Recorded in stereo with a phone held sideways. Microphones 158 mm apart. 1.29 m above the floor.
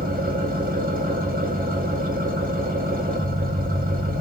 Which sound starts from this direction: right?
An engine running, at 0.0 s.